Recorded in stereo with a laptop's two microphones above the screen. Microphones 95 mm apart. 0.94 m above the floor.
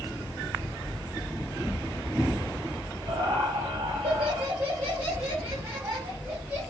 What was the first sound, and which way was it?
Laughter, 70° right (ahead or behind).